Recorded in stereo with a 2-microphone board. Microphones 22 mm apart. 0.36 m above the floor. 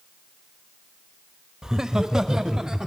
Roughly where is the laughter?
Right.